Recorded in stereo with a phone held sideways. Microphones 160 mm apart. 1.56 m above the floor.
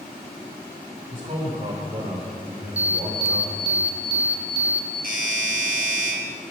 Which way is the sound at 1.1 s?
35° right (ahead or behind).